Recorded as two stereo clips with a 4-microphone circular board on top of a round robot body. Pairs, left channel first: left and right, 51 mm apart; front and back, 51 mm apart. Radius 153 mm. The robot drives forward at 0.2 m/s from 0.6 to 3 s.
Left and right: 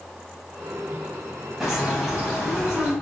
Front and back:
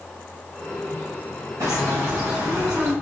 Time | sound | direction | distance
1.6 | a bird | 175° right | 3 m